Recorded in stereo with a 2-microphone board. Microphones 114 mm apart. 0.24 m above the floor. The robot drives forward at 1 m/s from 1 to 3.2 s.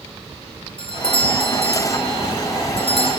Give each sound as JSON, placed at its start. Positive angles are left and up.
{"t": 0.8, "sound": "a doorbell", "side_deg": 50, "distance_m": 3.0}